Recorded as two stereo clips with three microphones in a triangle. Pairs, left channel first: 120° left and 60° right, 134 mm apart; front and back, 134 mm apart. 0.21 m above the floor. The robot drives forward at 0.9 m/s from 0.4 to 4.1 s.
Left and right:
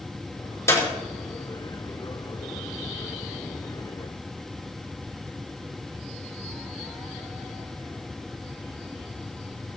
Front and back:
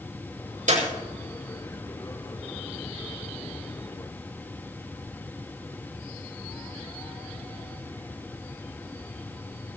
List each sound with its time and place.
0.7 s a clap: 170° right, 6 m